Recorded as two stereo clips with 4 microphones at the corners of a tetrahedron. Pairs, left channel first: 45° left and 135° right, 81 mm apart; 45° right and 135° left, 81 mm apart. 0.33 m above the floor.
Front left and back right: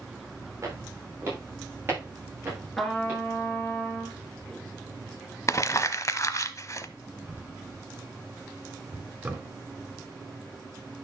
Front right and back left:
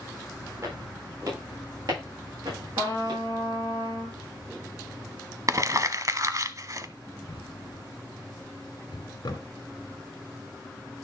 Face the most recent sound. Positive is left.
turn(degrees=-70)